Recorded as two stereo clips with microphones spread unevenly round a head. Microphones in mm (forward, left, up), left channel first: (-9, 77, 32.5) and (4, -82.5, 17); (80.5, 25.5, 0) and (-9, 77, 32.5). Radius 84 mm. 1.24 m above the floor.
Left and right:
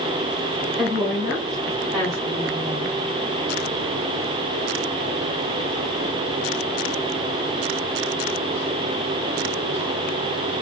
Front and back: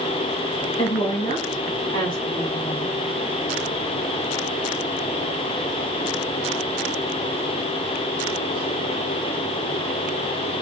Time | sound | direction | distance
0.8 | a woman speaking | 5° right | 1.6 m